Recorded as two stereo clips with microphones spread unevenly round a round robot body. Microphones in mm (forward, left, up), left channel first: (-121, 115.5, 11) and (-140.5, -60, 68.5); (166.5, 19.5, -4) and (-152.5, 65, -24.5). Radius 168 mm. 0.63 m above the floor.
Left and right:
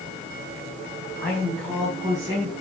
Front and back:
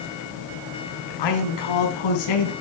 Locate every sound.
1.2 s a man speaking: 5° left, 5 m; by 2.5 s 20° right, 5 m